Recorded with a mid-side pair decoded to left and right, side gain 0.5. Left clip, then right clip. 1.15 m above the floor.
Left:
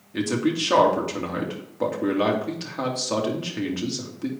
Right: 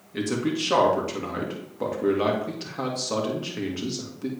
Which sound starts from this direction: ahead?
A man speaking, at 0.1 s.